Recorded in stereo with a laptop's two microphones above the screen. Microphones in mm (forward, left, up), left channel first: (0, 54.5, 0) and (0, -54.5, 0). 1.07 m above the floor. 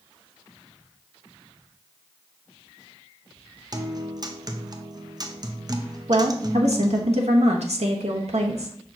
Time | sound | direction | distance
3.7 | a guitar | 35° right (ahead or behind) | 0.5 m
6.1 | a woman speaking | 80° right | 0.9 m